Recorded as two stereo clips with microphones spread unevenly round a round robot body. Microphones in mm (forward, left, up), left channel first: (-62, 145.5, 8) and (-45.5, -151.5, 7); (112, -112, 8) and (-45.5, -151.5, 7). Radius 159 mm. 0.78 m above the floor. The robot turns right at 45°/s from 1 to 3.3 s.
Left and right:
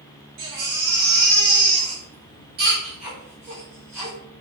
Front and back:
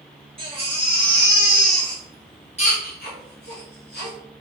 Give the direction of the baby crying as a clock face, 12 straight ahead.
4 o'clock.